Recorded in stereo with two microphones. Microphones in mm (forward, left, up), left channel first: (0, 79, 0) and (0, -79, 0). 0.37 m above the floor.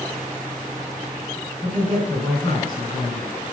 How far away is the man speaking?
About 4 m.